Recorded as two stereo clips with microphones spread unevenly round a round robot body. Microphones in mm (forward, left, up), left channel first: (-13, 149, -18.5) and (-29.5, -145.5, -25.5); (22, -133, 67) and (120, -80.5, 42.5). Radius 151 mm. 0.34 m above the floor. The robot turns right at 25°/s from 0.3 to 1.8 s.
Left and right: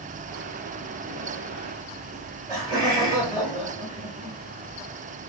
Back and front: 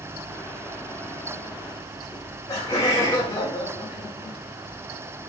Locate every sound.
2.1 s laughter: 125° right, 0.8 m